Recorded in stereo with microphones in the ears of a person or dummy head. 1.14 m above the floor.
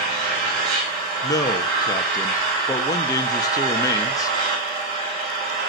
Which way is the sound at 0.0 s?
45° right (ahead or behind).